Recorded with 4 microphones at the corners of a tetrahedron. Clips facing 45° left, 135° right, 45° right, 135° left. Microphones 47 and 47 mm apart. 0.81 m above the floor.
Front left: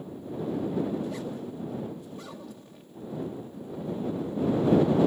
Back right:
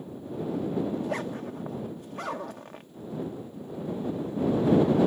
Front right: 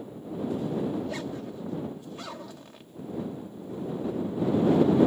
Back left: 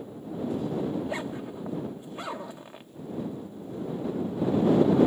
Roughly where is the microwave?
No microwave in this recording.